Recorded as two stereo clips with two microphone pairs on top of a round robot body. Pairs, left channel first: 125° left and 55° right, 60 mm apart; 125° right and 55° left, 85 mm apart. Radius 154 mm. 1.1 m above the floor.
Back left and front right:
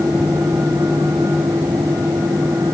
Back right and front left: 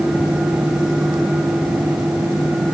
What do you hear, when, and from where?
Only background noise.